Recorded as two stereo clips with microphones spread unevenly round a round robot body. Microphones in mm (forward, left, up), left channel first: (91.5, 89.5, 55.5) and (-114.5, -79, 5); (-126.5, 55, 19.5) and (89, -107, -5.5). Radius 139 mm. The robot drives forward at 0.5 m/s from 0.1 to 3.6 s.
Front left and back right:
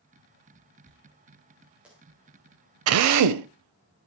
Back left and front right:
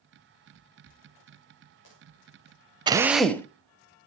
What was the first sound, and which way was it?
A dropped coin, 130° left.